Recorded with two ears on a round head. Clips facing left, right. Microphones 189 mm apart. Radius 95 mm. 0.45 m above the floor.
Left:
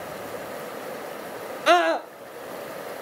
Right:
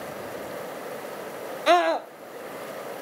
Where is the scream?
5° left (ahead or behind), 0.9 m.